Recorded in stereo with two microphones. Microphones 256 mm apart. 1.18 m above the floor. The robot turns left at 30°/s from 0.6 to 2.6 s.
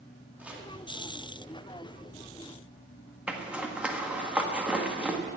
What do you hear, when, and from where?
0.4 s chopping: 5° right (ahead or behind), 2.0 m
3.3 s a zipper: 5° right (ahead or behind), 1.3 m